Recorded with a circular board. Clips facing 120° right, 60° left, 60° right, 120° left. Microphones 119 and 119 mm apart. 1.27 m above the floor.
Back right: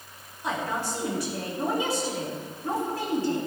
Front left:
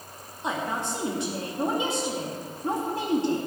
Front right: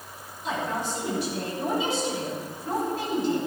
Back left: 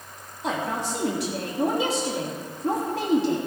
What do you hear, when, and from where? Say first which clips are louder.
0.4 s a woman speaking: even, back left 2 dB; 125° left, 3 m